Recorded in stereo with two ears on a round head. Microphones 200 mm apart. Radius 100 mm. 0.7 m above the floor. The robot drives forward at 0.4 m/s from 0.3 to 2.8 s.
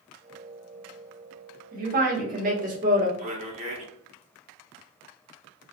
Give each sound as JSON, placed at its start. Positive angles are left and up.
{"t": 1.7, "sound": "a woman speaking", "side_deg": -40, "distance_m": 1.4}
{"t": 3.2, "sound": "a man speaking", "side_deg": -30, "distance_m": 0.6}